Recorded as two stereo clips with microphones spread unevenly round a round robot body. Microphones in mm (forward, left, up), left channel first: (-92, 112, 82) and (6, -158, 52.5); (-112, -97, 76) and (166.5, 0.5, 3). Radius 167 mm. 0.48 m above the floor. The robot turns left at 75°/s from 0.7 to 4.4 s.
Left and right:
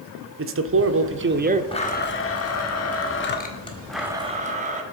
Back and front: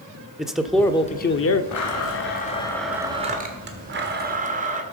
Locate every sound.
0.4 s a man speaking: 55° right, 1.3 m; by 1.6 s 125° right, 1.3 m
1.7 s a blender: 175° right, 1.8 m; by 4.8 s 20° right, 1.8 m